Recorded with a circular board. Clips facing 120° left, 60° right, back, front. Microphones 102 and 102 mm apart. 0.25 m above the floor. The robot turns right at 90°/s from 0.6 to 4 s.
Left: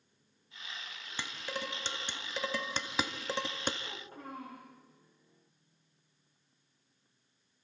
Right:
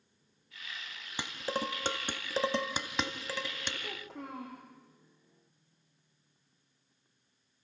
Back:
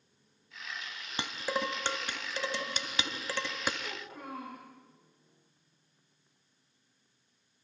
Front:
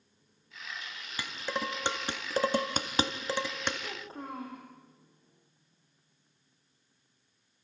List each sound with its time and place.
1.2 s dishes clattering: 130° right, 1.0 m; by 3.7 s 100° left, 1.0 m
3.8 s a child speaking: 80° right, 7 m; by 4.6 s 60° right, 7 m